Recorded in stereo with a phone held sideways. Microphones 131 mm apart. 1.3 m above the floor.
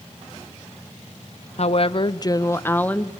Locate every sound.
1.6 s a woman speaking: 55° left (ahead or behind), 1.0 m; by 3.1 s 5° left (ahead or behind), 1.6 m